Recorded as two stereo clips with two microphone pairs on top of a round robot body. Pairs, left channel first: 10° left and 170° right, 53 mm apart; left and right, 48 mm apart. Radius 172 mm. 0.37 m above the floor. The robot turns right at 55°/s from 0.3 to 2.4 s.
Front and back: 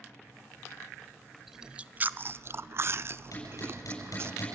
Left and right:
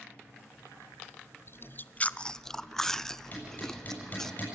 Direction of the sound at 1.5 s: 115° left.